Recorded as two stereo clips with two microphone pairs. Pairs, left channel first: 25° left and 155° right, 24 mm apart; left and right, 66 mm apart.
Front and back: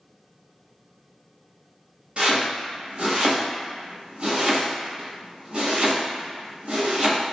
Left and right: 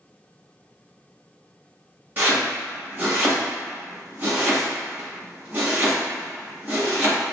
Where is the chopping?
135° right, 1.4 m.